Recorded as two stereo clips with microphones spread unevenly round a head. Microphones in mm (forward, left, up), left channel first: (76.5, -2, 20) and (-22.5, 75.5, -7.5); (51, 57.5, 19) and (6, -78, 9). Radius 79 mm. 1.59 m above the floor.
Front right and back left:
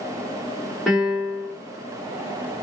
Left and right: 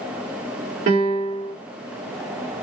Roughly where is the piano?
Behind right.